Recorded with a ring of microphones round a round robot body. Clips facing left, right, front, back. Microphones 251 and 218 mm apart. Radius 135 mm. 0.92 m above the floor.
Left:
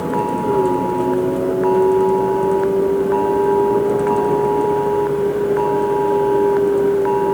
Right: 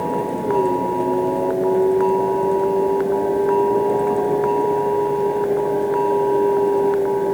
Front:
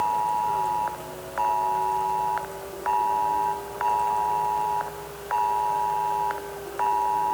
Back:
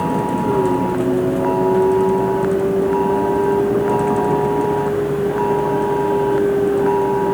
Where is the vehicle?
165° left.